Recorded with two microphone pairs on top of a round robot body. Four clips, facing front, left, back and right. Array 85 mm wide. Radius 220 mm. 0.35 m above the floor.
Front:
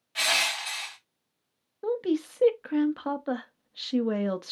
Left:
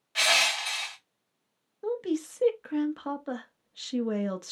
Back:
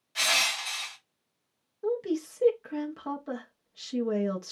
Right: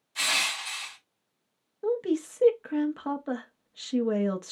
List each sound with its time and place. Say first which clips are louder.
0.1 s crushing: left 4 dB, front 1 dB; 80° left, 2 m
1.8 s a woman speaking: right 3 dB, front 2 dB; straight ahead, 0.8 m